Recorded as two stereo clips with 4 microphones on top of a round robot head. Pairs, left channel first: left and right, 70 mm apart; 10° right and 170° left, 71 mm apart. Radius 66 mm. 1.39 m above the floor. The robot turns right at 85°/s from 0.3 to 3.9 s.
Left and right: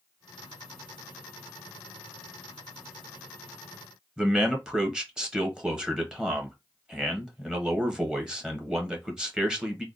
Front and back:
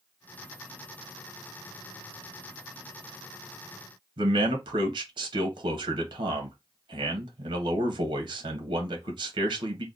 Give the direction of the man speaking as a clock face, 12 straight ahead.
6 o'clock.